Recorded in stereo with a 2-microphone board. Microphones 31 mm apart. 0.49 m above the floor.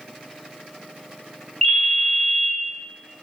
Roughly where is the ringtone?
Centre.